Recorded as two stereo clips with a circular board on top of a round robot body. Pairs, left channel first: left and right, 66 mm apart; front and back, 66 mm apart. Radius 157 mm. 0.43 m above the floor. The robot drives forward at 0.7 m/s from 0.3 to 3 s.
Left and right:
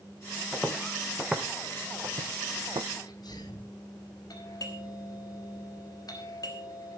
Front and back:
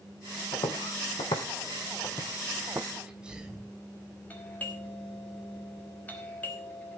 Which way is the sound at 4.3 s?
65° left.